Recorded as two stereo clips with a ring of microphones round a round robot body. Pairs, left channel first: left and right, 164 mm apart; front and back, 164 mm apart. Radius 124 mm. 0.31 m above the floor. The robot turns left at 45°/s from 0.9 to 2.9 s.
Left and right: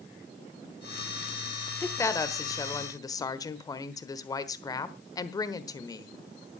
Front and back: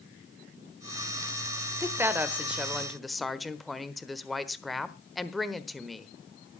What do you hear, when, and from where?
1.8 s a woman speaking: 140° left, 1.2 m; by 6.1 s 90° left, 1.2 m